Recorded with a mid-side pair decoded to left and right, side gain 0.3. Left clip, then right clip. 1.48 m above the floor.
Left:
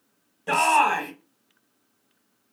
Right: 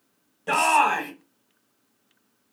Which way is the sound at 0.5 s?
5° right.